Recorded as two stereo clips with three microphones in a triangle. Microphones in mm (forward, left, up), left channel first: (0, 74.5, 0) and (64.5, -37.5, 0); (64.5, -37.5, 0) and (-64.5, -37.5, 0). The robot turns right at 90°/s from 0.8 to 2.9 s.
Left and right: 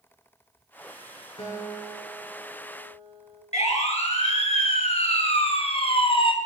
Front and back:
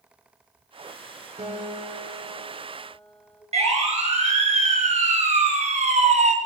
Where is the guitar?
150° left, 4.5 m; by 3.4 s 75° right, 4.5 m.